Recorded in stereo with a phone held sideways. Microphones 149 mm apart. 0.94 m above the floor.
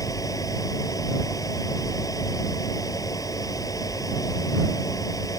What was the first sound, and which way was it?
A fan, 20° left (ahead or behind).